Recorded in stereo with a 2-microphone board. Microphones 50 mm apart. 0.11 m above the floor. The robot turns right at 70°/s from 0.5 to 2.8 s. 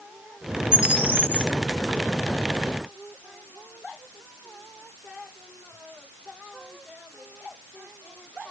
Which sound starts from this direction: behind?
A bird, at 0.7 s.